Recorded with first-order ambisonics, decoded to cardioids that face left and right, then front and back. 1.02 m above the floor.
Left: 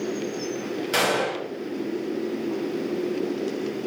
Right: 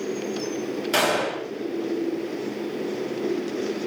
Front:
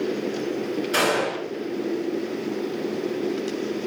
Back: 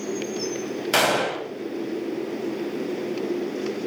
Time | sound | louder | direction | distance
0.9 | a gunshot | right 1 dB, back 2 dB | 175° right | 1.0 m